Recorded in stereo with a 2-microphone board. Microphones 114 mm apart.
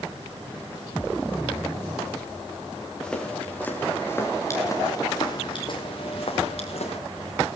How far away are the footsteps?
About 5.5 m.